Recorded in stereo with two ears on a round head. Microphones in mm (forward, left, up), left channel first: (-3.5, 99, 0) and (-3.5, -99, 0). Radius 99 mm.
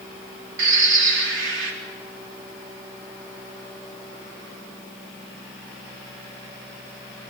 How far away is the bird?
About 3.5 m.